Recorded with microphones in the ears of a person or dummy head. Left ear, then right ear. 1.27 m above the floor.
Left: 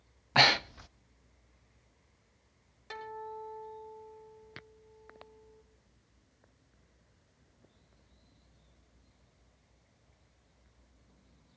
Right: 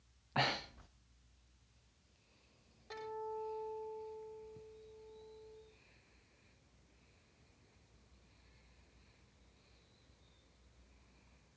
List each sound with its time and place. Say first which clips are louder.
0.3 s breathing: left 12 dB; 80° left, 0.6 m
2.9 s a guitar: left 2 dB; 75° left (ahead or behind), 7 m